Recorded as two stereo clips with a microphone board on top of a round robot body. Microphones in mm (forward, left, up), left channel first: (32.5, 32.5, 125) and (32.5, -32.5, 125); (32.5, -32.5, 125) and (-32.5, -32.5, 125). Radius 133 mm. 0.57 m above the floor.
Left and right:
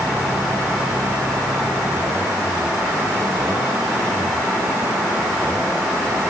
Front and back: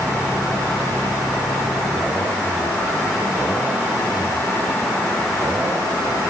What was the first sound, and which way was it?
Only background noise.